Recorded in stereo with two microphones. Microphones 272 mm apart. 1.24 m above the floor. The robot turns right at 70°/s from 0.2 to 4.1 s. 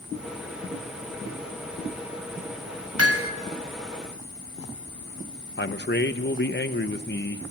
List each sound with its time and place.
3.0 s hammering: 65° right (ahead or behind), 2 m; by 3.3 s 45° right (ahead or behind), 2 m
5.6 s a man speaking: 40° left (ahead or behind), 1.2 m